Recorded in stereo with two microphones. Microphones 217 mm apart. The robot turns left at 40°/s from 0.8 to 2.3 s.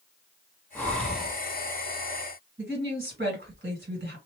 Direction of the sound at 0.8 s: 10° left (ahead or behind).